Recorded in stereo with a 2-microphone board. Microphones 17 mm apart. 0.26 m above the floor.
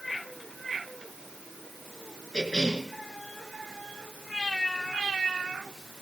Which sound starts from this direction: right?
A cough, at 2.3 s.